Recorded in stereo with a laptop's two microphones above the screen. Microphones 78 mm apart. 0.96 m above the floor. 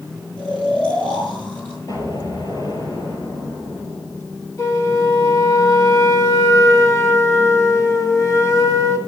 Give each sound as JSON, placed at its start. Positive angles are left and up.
{"t": 0.4, "sound": "snoring", "side_deg": 15, "distance_m": 5.0}
{"t": 1.9, "sound": "an explosion", "side_deg": 55, "distance_m": 4.5}
{"t": 4.6, "sound": "a flute", "side_deg": 40, "distance_m": 1.2}